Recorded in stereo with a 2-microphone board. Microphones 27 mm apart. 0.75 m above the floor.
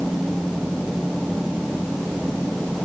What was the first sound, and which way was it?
Only background noise.